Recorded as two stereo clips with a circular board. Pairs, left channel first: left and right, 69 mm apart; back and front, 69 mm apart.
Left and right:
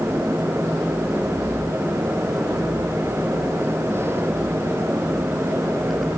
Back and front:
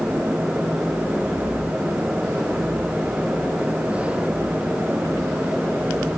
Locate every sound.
Only background noise.